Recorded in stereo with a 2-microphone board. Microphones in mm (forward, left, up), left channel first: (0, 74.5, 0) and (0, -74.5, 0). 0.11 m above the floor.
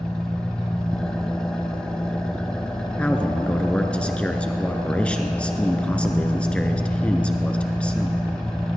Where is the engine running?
5° left (ahead or behind), 1.5 m.